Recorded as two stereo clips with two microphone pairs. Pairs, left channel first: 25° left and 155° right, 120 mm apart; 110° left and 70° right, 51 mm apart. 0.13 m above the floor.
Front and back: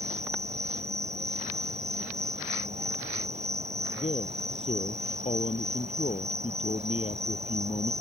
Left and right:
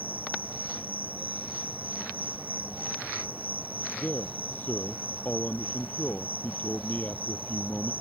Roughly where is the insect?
Behind right.